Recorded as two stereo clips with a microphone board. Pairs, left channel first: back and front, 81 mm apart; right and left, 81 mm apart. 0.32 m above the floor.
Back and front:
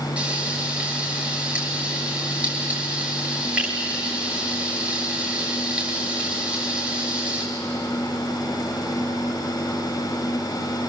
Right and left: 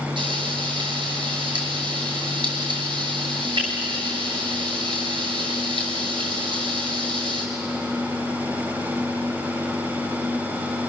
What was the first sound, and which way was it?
Frying, 75° left.